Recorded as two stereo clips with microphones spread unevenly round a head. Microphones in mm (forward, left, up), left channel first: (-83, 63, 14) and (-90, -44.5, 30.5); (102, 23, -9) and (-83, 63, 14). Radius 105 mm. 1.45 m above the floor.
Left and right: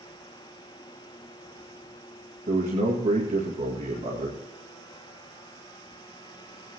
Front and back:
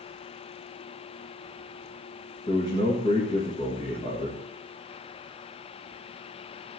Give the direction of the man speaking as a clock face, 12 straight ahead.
3 o'clock.